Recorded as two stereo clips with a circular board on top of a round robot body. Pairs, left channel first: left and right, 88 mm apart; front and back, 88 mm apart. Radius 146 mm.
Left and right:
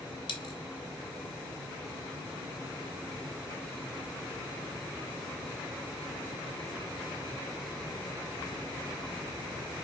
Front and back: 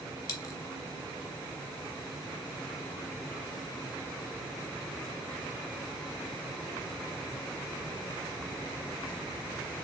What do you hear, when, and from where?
0.3 s a dropped coin: 55° left, 0.6 m